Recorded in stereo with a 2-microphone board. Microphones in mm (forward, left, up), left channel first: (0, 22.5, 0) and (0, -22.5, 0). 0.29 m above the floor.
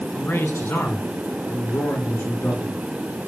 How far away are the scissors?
I don't hear scissors.